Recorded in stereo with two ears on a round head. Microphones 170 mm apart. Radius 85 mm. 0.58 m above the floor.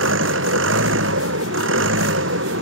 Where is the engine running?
70° right (ahead or behind).